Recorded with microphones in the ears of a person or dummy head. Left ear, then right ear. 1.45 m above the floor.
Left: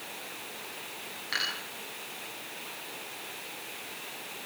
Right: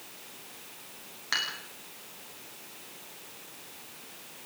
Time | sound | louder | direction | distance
1.3 | dishes clattering | right 1 dB | 40° right (ahead or behind) | 9 m